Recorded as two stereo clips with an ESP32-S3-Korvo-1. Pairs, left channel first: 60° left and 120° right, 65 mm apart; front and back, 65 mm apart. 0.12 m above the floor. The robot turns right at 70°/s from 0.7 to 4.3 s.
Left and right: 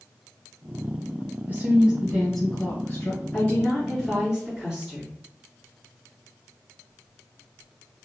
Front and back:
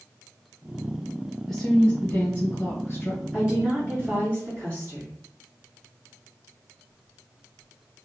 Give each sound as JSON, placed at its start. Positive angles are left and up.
{"t": 1.5, "sound": "a woman speaking", "azimuth_deg": -85, "distance_m": 1.3}
{"t": 3.3, "sound": "a woman speaking", "azimuth_deg": 105, "distance_m": 1.9}